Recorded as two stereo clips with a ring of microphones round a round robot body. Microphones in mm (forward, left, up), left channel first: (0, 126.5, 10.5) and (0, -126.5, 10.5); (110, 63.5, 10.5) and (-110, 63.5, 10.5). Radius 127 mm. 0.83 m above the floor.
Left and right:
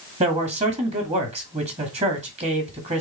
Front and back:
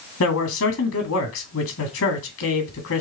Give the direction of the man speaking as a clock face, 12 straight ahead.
1 o'clock.